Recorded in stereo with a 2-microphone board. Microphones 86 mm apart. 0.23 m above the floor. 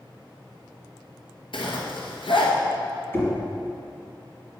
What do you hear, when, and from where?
1.5 s a zipper: 80° left, 1.7 m
3.1 s knocking: 25° left (ahead or behind), 1.9 m